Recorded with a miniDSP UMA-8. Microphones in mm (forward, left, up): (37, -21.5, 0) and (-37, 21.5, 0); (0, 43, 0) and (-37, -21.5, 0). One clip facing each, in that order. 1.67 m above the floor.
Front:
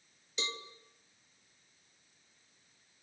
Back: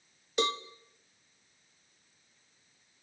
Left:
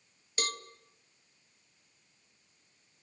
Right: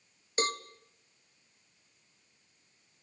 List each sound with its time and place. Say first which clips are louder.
0.4 s a cowbell: back 11 dB, right 5 dB; straight behind, 1.2 m